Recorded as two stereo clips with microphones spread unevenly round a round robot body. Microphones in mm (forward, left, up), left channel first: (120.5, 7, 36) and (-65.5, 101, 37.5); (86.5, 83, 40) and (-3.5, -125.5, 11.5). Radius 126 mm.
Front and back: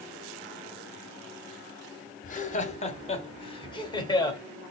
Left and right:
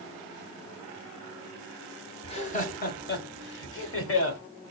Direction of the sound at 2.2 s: 5° left.